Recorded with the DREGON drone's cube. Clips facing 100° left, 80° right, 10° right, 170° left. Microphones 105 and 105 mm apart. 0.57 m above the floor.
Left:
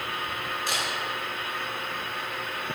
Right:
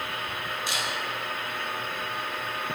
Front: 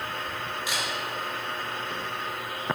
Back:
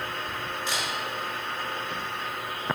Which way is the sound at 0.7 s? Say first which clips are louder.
Left 2 dB, back 1 dB; 70° left.